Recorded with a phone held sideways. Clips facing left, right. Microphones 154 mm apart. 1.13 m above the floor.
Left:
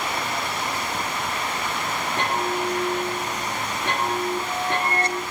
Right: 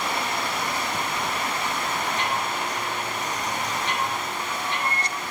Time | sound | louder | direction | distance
2.2 | a chime | left 3 dB | 55° left (ahead or behind) | 6 m